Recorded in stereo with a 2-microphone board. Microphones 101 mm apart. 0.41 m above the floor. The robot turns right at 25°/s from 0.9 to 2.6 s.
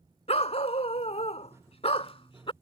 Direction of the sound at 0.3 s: 85° left.